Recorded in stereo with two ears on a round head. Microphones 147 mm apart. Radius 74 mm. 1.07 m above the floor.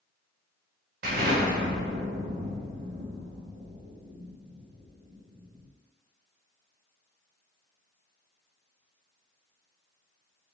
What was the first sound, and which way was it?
An explosion, 60° right (ahead or behind).